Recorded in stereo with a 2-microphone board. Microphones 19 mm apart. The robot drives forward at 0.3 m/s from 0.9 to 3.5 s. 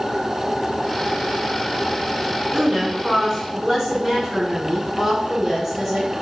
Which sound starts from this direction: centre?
A woman speaking, at 2.5 s.